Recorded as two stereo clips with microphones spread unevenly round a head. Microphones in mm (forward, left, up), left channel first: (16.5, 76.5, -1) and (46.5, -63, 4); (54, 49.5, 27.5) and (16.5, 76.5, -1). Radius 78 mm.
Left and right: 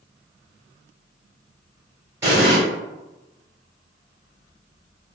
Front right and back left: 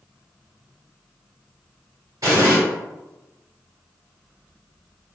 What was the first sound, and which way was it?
An explosion, 150° right.